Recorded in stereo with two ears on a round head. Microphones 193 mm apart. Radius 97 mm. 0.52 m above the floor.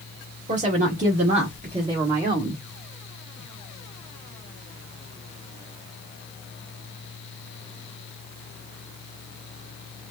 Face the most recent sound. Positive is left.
turn(degrees=-15)  # may be behind; listen again after turning